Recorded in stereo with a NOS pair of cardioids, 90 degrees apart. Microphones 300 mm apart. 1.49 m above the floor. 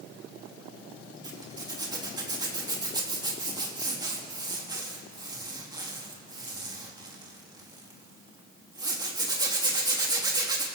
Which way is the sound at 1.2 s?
15° right.